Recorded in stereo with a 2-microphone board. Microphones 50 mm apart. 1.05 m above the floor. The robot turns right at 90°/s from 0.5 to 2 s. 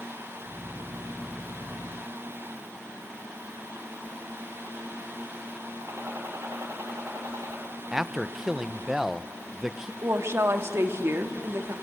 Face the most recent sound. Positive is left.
turn(degrees=-55)  # may be behind; listen again after turning